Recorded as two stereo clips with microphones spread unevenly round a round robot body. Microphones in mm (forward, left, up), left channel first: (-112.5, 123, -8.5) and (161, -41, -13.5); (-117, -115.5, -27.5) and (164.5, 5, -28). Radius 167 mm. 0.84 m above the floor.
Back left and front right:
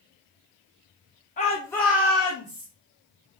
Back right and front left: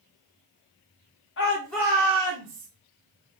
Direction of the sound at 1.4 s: 160° right.